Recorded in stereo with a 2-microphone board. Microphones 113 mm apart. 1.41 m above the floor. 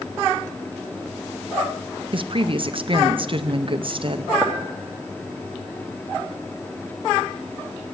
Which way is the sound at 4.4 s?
15° right (ahead or behind).